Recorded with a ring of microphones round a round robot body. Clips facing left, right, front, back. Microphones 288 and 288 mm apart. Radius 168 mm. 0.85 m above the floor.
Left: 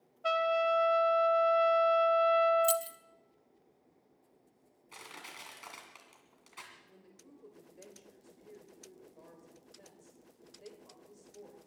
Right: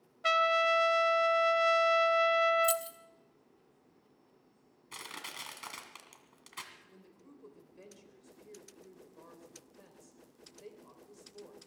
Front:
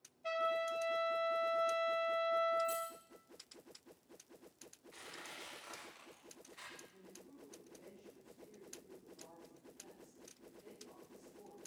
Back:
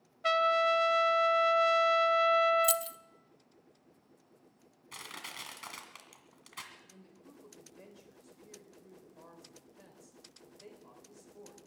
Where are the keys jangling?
170° left, 0.8 m.